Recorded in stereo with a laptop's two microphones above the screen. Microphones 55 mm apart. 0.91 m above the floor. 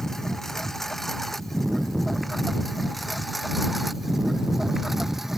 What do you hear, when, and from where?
0.0 s a lawn mower: 10° left (ahead or behind); by 5.4 s 5° right (ahead or behind)